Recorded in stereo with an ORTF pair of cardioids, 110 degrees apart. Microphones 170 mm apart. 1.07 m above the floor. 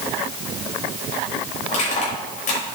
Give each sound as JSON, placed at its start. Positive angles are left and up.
{"t": 1.7, "sound": "crushing", "azimuth_deg": 45, "distance_m": 6.0}